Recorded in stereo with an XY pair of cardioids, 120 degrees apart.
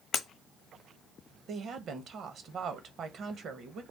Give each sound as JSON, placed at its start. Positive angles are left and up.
{"t": 0.1, "sound": "breaking glass", "azimuth_deg": 60, "distance_m": 0.9}
{"t": 1.5, "sound": "a woman speaking", "azimuth_deg": -55, "distance_m": 1.0}